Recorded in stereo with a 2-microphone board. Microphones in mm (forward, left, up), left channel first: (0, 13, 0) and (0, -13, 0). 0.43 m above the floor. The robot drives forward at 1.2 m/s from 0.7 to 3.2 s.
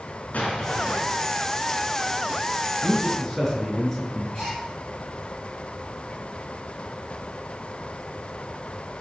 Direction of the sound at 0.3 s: 75° left (ahead or behind).